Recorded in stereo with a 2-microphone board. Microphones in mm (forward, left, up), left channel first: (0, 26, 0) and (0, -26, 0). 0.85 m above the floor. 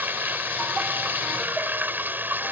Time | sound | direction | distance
0.0 | running water | 40° right (ahead or behind) | ?